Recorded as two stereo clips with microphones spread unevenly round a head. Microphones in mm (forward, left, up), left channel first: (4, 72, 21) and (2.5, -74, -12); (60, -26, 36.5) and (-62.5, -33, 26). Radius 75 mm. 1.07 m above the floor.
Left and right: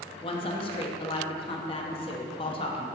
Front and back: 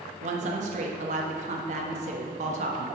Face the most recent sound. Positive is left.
turn(degrees=145)